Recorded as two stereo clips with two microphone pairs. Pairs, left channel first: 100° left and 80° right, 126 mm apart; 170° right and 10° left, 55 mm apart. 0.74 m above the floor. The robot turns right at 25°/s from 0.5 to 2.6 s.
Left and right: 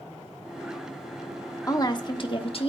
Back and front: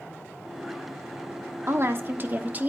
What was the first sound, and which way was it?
A woman speaking, 40° left.